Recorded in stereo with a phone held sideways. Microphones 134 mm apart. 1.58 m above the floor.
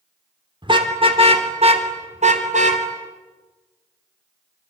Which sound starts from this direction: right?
A car horn, at 0.6 s.